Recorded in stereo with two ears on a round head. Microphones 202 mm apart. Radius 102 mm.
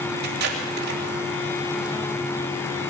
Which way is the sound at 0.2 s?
45° right (ahead or behind).